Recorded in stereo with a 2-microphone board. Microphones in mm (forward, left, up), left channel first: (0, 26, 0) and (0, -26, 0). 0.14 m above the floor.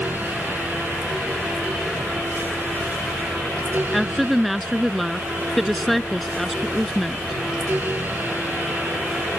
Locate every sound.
3.9 s a woman speaking: centre (ahead or behind)